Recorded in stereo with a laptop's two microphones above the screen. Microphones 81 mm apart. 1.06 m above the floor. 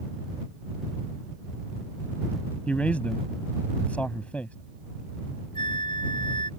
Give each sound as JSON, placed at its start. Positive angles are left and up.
{"t": 2.7, "sound": "a man speaking", "side_deg": 15}
{"t": 5.5, "sound": "a flute", "side_deg": 70}